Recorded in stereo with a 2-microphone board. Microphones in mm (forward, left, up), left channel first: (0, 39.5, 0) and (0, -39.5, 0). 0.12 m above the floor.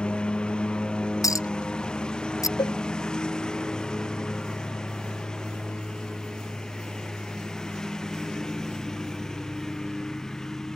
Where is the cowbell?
75° left (ahead or behind).